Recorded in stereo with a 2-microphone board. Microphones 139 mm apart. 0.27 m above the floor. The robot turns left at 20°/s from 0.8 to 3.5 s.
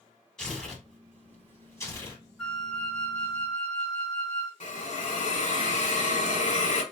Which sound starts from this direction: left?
A hiss, at 4.6 s.